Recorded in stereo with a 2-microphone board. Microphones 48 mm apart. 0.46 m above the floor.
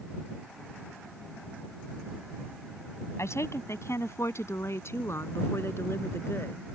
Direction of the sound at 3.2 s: 75° left (ahead or behind).